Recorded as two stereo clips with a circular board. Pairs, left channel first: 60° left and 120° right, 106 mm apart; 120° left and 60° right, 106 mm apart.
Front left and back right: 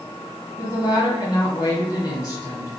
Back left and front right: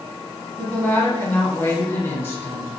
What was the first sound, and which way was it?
A woman speaking, 70° left.